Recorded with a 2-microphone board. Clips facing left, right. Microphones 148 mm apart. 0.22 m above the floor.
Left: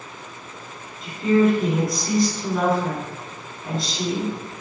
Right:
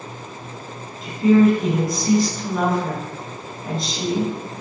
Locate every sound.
1.0 s a woman speaking: centre (ahead or behind), 1.8 m